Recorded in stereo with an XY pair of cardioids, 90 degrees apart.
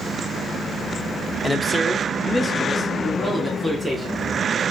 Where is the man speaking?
20° left, 0.8 m; by 4.3 s straight ahead, 2.5 m.